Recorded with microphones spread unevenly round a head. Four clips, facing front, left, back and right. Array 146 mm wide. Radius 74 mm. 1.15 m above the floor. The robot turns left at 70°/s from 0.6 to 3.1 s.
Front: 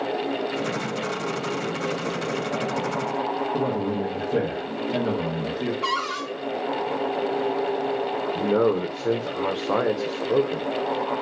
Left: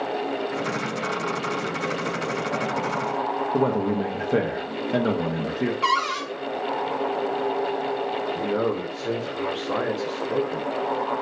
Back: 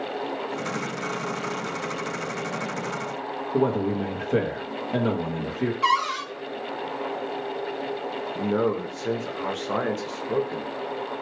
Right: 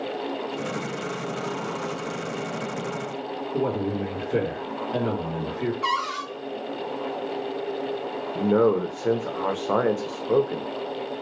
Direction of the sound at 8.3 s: 50° right.